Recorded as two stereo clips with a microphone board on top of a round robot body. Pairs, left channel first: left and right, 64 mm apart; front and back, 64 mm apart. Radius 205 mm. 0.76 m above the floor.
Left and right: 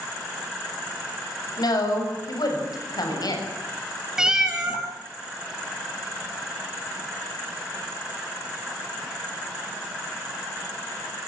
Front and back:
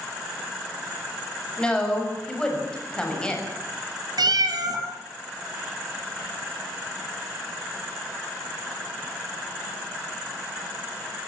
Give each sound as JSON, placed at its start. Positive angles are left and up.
{"t": 1.6, "sound": "a woman speaking", "azimuth_deg": 75, "distance_m": 6.5}
{"t": 4.2, "sound": "a cat meowing", "azimuth_deg": -170, "distance_m": 3.0}